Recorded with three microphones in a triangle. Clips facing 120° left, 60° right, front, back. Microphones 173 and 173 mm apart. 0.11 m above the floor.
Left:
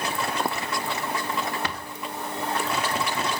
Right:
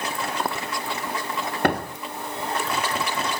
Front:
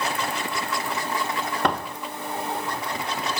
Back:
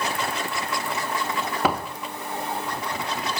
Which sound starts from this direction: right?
A door slam, at 1.6 s.